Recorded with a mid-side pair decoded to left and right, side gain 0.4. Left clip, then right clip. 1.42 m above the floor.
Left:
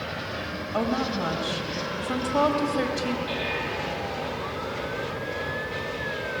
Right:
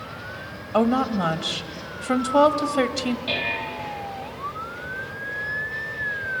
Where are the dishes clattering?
70° right, 6.5 m.